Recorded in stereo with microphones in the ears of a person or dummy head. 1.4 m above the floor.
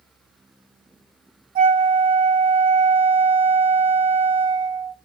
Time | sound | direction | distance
1.6 | a flute | 50° right (ahead or behind) | 2.5 m